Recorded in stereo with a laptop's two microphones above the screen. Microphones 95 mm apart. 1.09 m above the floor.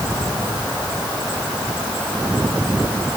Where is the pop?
I don't hear a pop.